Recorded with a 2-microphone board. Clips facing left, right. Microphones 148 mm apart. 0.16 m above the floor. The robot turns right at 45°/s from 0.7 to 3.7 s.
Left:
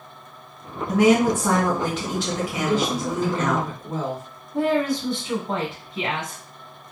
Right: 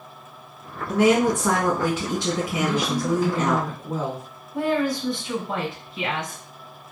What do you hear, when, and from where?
0.9 s a woman speaking: 150° left, 1.8 m; by 3.6 s 90° right, 1.8 m
2.6 s a woman speaking: 15° right (ahead or behind), 1.7 m; by 4.2 s centre (ahead or behind), 1.7 m
4.5 s a woman speaking: 25° left (ahead or behind), 1.2 m